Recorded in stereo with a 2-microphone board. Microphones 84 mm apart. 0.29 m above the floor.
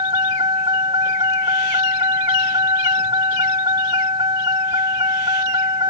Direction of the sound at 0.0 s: 70° right (ahead or behind).